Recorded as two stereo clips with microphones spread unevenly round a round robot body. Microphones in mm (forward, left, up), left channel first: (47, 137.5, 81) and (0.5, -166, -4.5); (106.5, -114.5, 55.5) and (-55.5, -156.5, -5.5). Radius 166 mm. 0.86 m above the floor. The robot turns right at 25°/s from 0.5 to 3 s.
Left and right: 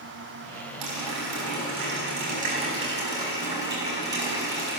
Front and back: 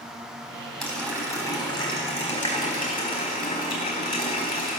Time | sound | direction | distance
0.8 | a running tap | 75° right | 4 m